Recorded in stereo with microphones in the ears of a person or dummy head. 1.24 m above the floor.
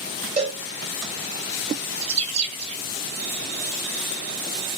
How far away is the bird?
About 0.7 m.